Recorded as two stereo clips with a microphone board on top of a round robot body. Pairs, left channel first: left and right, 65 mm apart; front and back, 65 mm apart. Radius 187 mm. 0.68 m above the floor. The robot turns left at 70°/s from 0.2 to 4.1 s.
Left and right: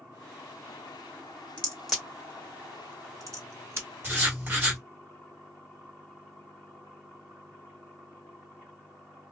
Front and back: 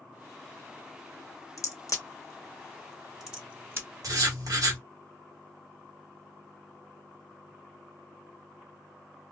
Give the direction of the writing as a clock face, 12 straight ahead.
5 o'clock.